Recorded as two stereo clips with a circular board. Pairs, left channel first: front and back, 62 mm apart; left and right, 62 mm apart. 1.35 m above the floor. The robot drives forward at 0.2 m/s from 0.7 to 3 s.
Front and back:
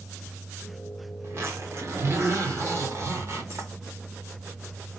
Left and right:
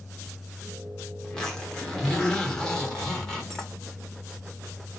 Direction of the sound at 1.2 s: 165° left.